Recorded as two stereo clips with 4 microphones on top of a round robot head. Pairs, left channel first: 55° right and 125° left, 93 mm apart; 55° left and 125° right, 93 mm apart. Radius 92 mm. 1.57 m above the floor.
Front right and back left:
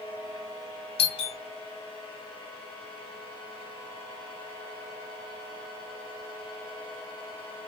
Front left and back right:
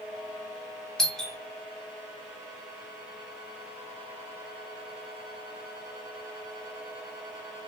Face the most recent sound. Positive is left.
turn(degrees=-30)